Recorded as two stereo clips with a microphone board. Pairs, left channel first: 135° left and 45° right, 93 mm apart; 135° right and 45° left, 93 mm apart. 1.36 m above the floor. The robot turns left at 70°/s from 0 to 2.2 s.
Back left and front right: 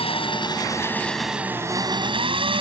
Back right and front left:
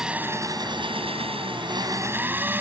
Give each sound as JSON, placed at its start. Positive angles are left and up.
{"t": 0.0, "sound": "an engine running", "azimuth_deg": 130}